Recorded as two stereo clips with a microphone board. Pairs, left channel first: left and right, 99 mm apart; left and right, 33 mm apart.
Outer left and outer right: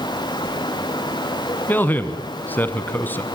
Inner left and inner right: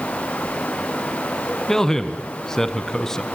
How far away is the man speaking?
About 1.1 m.